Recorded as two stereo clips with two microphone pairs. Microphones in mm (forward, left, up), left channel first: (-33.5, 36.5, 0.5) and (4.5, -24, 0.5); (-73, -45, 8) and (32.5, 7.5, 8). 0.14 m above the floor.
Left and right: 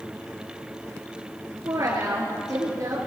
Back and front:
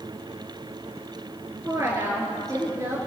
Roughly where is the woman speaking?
Ahead right.